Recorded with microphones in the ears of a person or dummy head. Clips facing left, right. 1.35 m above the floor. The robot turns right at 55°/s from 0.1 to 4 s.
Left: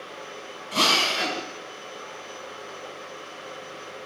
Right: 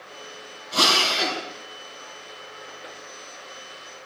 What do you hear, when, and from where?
0.7 s a drill: 140° left, 6 m; by 1.4 s straight behind, 6 m